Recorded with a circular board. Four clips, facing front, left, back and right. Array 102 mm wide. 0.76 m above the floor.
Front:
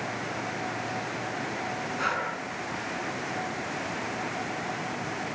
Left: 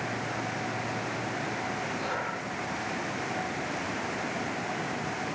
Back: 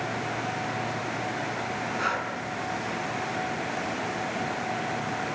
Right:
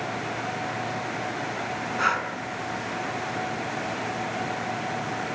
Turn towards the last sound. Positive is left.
turn(degrees=-90)